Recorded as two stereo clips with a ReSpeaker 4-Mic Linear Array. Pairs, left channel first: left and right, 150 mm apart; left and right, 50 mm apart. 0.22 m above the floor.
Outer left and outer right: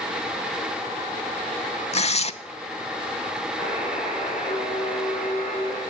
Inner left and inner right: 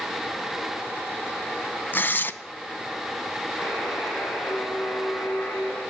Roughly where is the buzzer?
Left.